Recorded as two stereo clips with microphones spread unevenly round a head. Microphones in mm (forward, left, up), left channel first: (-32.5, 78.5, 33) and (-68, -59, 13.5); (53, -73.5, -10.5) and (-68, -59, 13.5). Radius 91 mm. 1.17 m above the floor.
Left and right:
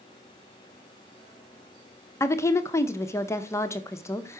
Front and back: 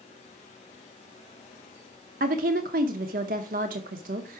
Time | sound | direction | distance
2.2 | a woman speaking | 145° left | 0.7 m